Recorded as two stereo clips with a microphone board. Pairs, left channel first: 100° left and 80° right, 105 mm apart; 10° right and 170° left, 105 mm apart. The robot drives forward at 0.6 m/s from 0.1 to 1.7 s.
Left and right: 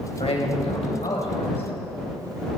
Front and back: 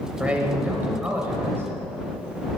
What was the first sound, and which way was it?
A man speaking, 90° left.